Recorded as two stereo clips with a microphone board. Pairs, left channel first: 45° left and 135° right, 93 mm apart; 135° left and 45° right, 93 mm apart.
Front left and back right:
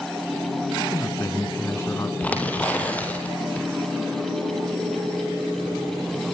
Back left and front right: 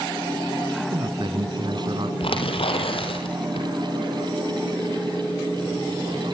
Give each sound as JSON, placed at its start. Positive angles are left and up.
{"t": 0.8, "sound": "a man speaking", "azimuth_deg": -15, "distance_m": 2.5}
{"t": 2.2, "sound": "tearing paper", "azimuth_deg": 120, "distance_m": 4.0}